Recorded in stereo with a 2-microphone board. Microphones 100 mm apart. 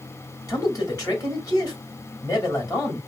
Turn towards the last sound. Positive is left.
turn(degrees=35)  # may be behind; listen again after turning